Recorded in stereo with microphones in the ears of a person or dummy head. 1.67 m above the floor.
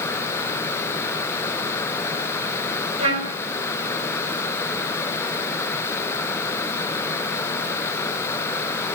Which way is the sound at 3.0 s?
40° right (ahead or behind).